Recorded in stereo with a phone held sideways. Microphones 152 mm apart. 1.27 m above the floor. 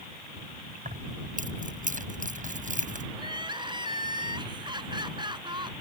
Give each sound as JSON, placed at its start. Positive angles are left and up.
{"t": 0.8, "sound": "keys jangling", "side_deg": -55}
{"t": 3.2, "sound": "crying", "side_deg": -30}